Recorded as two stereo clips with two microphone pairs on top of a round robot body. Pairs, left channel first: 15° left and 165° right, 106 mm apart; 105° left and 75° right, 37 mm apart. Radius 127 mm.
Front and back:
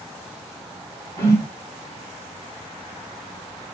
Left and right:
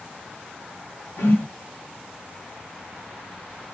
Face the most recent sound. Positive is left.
turn(degrees=75)